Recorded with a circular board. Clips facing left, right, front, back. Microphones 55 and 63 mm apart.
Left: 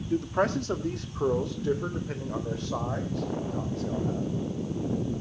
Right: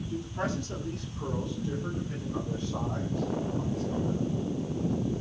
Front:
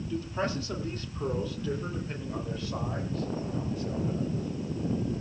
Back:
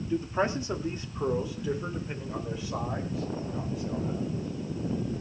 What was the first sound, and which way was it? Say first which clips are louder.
A man speaking: left 8 dB, back 4 dB; 115° left.